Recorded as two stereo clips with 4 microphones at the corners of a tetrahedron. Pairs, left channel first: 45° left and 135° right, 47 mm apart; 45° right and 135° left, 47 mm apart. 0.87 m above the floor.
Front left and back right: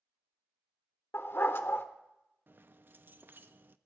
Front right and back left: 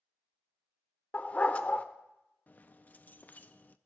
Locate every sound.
1.1 s a dog barking: 15° left, 0.8 m
2.5 s keys jangling: 95° right, 0.6 m